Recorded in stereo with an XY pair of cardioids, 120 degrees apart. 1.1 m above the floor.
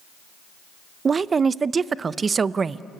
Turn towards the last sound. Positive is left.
turn(degrees=-30)